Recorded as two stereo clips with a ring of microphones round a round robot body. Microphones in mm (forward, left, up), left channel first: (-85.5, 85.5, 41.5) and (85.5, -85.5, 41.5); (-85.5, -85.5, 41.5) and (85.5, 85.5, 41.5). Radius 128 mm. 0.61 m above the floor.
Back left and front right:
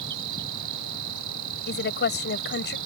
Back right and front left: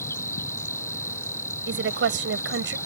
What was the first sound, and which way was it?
An insect, 55° right.